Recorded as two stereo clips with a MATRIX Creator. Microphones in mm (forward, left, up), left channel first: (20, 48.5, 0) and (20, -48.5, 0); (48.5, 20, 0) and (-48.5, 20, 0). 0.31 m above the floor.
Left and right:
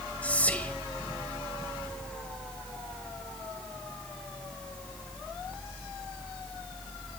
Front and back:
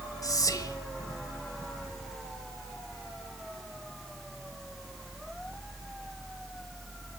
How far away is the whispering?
About 1.2 m.